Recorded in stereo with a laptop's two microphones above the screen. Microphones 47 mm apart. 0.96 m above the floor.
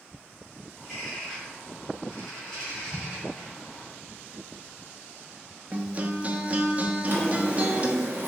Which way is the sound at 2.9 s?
5° right (ahead or behind).